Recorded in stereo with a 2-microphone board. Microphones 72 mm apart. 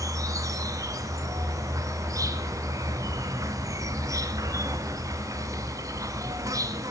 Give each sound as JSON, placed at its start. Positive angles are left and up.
{"t": 0.0, "sound": "an insect", "side_deg": -50, "distance_m": 1.0}